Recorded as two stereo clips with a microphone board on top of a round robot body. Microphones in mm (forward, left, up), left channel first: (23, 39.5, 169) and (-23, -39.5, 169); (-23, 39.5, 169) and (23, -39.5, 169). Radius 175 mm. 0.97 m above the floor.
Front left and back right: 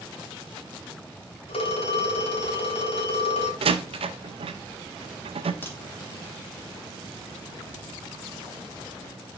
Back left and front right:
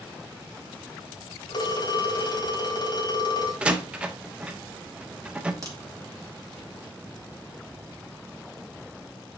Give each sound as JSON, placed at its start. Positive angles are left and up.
{"t": 1.5, "sound": "a phone ringing", "azimuth_deg": 75, "distance_m": 1.4}
{"t": 3.6, "sound": "a door slam", "azimuth_deg": -140, "distance_m": 0.6}
{"t": 5.6, "sound": "a crack", "azimuth_deg": -5, "distance_m": 3.0}